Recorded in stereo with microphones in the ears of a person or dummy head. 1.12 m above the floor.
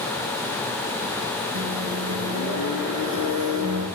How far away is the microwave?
About 5 m.